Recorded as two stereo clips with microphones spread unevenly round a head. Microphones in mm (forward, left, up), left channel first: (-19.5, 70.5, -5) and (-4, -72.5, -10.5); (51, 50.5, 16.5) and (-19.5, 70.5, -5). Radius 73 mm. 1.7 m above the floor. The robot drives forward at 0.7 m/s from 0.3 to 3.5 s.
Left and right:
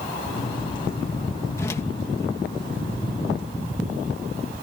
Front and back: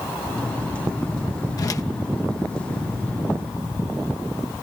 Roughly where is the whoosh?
Ahead left.